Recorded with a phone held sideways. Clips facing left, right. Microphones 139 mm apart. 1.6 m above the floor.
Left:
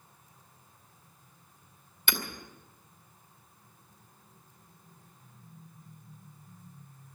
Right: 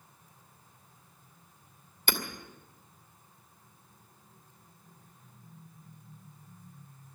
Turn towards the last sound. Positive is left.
turn(degrees=-40)  # may be behind; listen again after turning